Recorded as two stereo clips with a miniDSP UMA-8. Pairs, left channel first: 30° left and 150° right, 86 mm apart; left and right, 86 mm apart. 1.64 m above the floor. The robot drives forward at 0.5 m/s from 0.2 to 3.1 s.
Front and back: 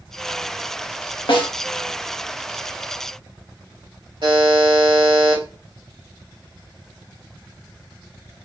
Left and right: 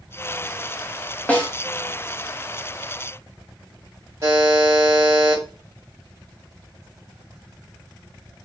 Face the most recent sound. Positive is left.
turn(degrees=-140)